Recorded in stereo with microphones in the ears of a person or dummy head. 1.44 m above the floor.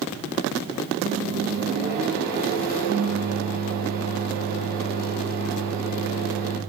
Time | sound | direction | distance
1.0 | a microwave | 50° right (ahead or behind) | 0.8 m